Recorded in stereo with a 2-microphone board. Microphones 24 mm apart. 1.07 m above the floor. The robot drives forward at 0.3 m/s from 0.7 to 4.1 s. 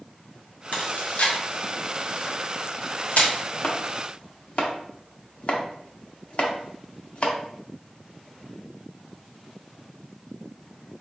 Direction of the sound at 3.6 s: 55° left (ahead or behind).